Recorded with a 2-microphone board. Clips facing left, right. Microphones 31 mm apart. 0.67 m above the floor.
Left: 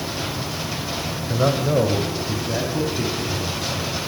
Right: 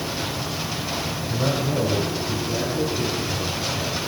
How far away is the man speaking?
About 3 m.